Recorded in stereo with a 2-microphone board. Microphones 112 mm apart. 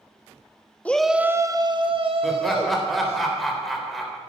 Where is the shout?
15° left (ahead or behind), 1.1 m; by 3.2 s 70° right (ahead or behind), 3 m.